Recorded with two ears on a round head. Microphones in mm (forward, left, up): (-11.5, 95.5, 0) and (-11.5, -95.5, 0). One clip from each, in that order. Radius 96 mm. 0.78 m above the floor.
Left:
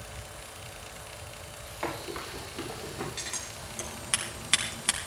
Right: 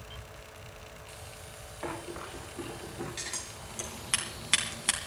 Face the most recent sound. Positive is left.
turn(degrees=0)  # may be behind; listen again after turning